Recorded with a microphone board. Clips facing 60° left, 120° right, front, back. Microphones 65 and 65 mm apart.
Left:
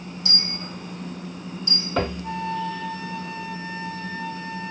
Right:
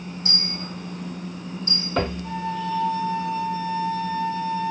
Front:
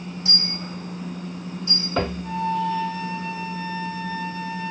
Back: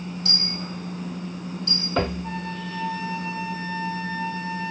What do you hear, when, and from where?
0.2 s a dropped coin: 170° right, 1.7 m
2.2 s a flute: 80° left, 0.7 m